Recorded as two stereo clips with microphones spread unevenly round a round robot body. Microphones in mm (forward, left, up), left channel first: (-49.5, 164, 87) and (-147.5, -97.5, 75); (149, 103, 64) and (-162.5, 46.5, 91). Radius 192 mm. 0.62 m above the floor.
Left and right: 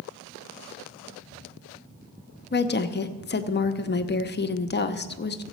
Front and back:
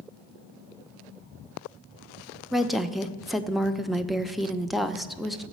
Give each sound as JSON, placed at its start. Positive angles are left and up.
{"t": 2.5, "sound": "a woman speaking", "azimuth_deg": 95, "distance_m": 0.9}